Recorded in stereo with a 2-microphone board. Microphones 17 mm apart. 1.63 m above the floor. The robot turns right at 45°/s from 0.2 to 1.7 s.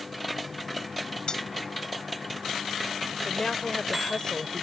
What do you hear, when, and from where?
1.3 s cutlery clinking: 55° left (ahead or behind); by 1.4 s 45° left (ahead or behind)
3.2 s a woman speaking: 45° left (ahead or behind)